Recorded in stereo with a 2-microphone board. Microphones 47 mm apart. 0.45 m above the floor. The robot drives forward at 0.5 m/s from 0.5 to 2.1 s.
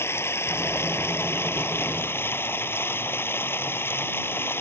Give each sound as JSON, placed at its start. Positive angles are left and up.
{"t": 0.0, "sound": "running water", "side_deg": 65}